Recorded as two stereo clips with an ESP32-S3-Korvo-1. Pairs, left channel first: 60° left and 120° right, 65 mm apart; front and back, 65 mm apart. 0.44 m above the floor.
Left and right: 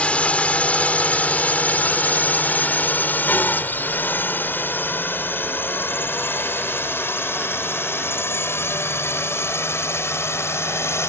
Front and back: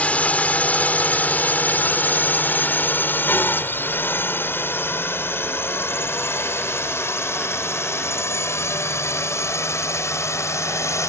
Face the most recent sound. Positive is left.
turn(degrees=25)